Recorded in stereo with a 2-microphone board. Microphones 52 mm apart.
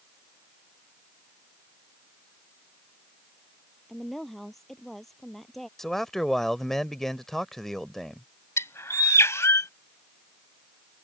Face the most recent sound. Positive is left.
turn(degrees=70)  # may be behind; listen again after turning